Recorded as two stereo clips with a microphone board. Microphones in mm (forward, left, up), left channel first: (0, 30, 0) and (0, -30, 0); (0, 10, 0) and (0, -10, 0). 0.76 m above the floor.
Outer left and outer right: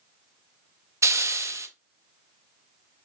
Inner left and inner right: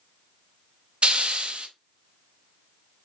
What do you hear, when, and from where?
1.0 s a hiss: 50° right (ahead or behind), 0.5 m